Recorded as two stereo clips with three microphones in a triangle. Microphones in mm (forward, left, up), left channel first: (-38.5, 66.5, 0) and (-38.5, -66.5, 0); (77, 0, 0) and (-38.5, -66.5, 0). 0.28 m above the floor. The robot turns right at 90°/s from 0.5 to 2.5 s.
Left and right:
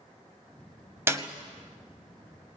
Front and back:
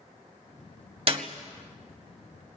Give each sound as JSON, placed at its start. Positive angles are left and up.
{"t": 1.1, "sound": "a clap", "azimuth_deg": -155, "distance_m": 1.4}